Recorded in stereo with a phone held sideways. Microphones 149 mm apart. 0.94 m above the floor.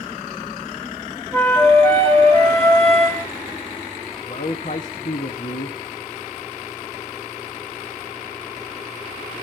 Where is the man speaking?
55° left (ahead or behind), 1.1 m.